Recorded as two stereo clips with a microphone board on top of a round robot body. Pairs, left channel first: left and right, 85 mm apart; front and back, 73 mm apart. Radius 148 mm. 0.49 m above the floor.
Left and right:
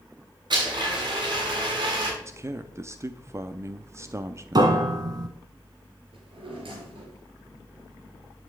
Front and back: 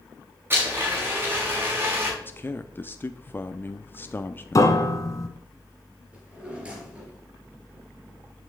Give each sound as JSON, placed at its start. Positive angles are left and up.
{"t": 0.5, "sound": "a blender", "azimuth_deg": -120, "distance_m": 6.5}
{"t": 2.2, "sound": "a man speaking", "azimuth_deg": -50, "distance_m": 0.9}
{"t": 4.5, "sound": "a piano", "azimuth_deg": -45, "distance_m": 1.6}
{"t": 6.1, "sound": "a drawer", "azimuth_deg": -105, "distance_m": 5.0}